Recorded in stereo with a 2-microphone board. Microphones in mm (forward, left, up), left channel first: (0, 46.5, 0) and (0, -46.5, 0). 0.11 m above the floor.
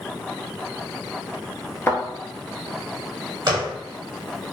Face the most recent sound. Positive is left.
turn(degrees=-50)  # may be behind; listen again after turning